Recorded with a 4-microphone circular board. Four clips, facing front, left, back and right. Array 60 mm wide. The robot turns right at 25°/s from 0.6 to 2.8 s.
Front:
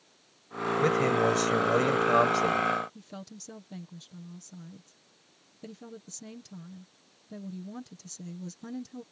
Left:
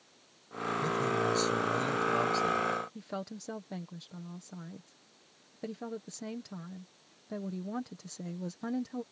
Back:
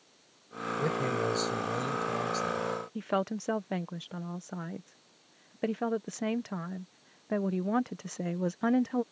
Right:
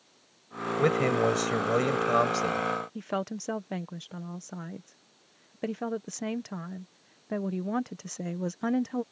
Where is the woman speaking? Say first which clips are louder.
Right 8 dB, back 14 dB; 155° right.